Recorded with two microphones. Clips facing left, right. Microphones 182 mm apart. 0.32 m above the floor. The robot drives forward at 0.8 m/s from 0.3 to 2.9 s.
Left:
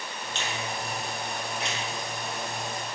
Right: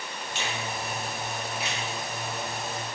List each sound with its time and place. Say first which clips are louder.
0.3 s a finger snap: even; 10° right (ahead or behind), 1.4 m; by 1.8 s 5° right (ahead or behind), 2 m